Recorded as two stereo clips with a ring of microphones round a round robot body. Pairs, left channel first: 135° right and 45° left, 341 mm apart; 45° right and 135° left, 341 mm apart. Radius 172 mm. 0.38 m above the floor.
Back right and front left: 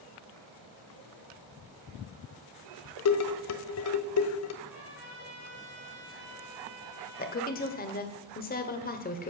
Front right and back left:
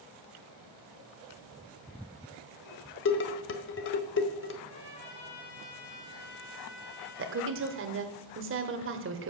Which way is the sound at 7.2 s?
170° left.